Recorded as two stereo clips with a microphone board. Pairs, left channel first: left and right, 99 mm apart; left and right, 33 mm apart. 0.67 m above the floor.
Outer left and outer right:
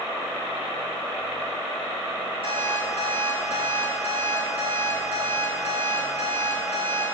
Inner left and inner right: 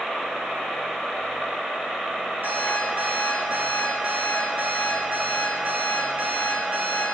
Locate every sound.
2.4 s an alarm clock: 65° right (ahead or behind), 5.5 m